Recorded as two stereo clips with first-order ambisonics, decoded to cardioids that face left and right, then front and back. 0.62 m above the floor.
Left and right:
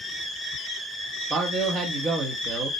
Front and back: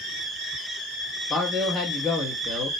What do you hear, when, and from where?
1.3 s a man speaking: 90° right, 0.6 m